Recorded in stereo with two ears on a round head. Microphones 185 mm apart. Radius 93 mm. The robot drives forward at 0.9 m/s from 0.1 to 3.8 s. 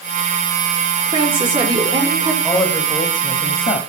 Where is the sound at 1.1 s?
25° right (ahead or behind), 2 m; by 2.3 s 20° right (ahead or behind), 3.5 m.